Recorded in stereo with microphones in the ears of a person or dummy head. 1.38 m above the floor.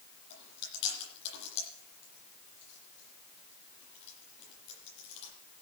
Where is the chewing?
70° left (ahead or behind), 9 m.